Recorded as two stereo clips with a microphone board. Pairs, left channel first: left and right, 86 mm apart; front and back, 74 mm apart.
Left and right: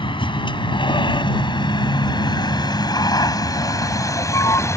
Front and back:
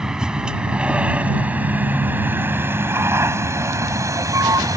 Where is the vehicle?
100° left; by 4.8 s 145° left.